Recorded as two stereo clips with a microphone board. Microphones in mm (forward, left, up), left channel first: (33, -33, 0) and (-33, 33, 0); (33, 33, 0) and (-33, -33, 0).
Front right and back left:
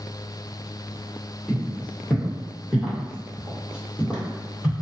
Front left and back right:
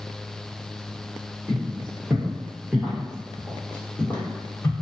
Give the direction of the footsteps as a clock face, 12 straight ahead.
5 o'clock.